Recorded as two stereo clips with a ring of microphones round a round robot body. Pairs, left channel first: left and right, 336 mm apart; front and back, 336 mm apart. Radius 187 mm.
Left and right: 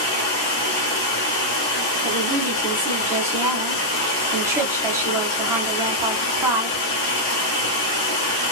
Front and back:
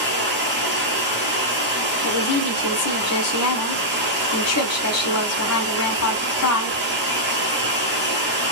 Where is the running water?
115° left, 1.0 m.